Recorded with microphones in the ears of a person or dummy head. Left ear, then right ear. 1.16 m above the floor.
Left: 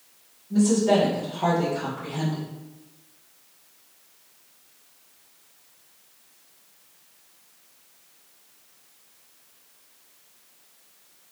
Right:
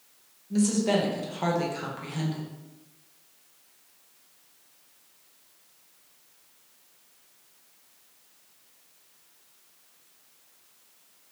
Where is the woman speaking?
55° right (ahead or behind), 0.9 m.